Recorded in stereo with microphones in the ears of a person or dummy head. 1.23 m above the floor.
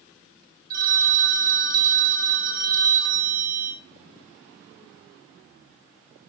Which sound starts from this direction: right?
A phone ringing, at 0.7 s.